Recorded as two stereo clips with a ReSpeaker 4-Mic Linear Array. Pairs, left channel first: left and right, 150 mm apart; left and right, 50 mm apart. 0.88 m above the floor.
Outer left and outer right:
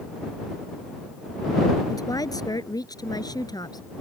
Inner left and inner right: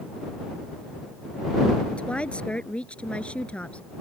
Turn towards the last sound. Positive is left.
turn(degrees=25)  # may be behind; listen again after turning